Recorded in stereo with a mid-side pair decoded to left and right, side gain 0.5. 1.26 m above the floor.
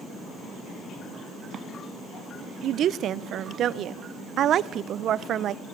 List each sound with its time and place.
2.6 s a woman speaking: 60° right, 0.7 m